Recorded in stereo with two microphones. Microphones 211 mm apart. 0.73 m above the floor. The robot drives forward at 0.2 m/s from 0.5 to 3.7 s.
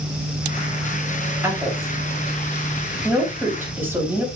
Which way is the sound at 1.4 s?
10° right (ahead or behind).